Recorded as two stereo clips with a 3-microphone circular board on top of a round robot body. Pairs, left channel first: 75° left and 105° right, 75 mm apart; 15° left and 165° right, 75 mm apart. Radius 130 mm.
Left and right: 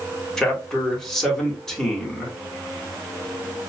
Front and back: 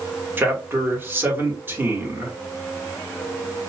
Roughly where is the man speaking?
Behind left.